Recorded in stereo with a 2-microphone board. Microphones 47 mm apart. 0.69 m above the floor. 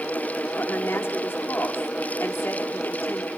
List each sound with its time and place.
0.6 s a woman speaking: 50° left (ahead or behind), 1.6 m